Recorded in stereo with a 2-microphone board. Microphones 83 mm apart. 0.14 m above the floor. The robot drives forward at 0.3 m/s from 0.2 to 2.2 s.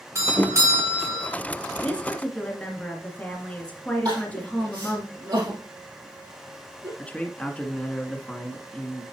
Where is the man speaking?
15° left (ahead or behind), 1.3 m.